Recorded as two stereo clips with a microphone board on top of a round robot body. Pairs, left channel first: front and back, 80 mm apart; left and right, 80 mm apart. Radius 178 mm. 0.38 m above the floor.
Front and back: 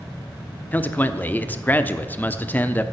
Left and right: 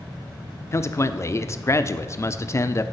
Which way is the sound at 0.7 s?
55° left.